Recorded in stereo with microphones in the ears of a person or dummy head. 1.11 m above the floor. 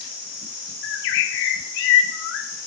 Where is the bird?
75° left (ahead or behind), 2 m.